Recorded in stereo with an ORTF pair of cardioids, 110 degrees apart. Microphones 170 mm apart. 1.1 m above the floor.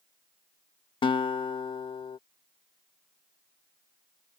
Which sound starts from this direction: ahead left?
A guitar, at 1.0 s.